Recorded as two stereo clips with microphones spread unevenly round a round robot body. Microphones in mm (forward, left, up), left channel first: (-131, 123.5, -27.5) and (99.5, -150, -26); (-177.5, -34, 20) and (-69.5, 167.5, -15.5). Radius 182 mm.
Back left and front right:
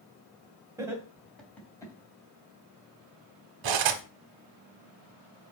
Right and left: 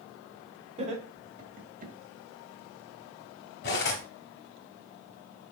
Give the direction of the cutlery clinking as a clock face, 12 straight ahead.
2 o'clock.